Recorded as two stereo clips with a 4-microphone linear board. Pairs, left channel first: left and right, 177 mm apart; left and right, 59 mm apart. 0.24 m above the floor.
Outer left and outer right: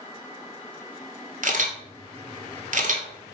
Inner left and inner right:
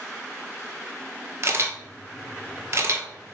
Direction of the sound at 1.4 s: 45° right (ahead or behind).